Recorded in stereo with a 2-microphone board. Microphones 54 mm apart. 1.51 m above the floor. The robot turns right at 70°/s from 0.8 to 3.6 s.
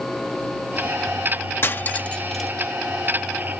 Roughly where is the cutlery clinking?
Left.